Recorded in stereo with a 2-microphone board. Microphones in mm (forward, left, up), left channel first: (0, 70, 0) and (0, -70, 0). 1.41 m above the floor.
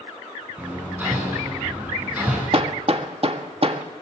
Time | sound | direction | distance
0.6 | hammering | 10° right (ahead or behind) | 7.5 m
2.5 | hammering | 45° right (ahead or behind) | 1.5 m